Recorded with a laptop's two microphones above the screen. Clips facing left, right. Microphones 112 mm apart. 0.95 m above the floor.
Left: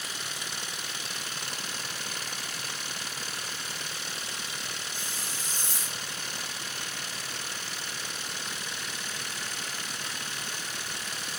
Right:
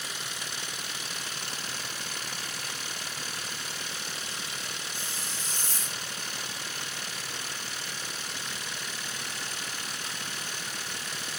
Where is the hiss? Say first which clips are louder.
Even; 10° left (ahead or behind).